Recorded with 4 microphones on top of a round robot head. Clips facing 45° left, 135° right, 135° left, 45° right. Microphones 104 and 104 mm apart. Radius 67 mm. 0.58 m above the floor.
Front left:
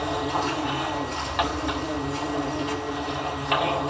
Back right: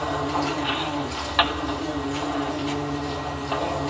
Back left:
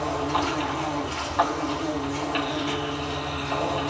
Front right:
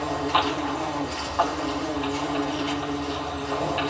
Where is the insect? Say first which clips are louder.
Back right 1 dB, front right 1 dB; 110° right, 2.5 m.